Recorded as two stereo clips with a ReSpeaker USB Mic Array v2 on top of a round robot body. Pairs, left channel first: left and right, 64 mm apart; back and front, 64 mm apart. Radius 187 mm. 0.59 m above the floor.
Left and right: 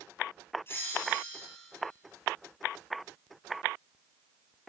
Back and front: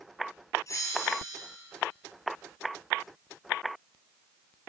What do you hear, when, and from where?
0.7 s a bell: 140° left, 3.5 m